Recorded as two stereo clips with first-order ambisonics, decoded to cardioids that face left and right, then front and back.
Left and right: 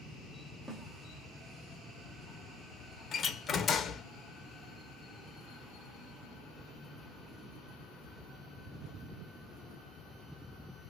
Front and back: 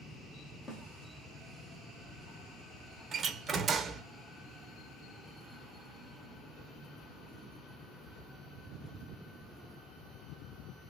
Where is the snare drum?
45° right, 1.7 m.